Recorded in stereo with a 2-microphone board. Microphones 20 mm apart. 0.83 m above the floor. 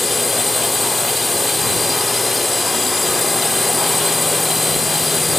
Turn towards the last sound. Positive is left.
turn(degrees=5)  # may be behind; listen again after turning